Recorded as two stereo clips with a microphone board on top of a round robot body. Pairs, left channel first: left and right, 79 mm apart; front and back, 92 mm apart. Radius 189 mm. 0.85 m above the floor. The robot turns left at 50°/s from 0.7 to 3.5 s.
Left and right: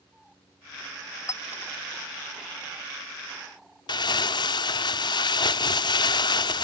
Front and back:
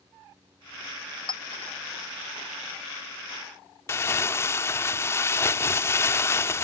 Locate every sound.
1.3 s a clink: 40° left; by 1.7 s 15° left
3.9 s crumpling: 65° left